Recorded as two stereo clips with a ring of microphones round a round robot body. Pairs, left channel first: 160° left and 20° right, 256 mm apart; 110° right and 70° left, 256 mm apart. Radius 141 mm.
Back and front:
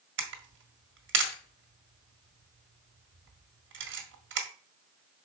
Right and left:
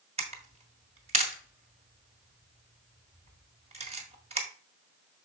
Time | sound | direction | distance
0.2 | a camera shutter | 10° left | 1.5 m